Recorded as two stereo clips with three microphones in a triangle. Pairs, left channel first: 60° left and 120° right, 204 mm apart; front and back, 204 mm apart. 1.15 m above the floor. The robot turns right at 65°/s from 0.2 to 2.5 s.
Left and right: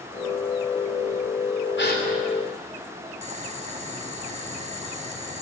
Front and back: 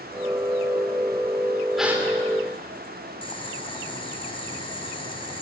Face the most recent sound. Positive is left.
turn(degrees=-65)